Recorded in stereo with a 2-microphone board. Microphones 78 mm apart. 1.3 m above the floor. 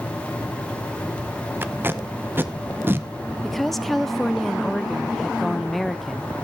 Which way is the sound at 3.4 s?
5° left (ahead or behind).